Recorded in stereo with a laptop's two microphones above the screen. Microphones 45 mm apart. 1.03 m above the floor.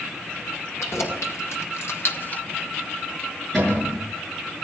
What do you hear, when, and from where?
0.8 s keys jangling: 75° left (ahead or behind), 3 m; by 2.4 s 25° left (ahead or behind), 0.6 m
3.5 s a cupboard door: 5° left (ahead or behind), 7 m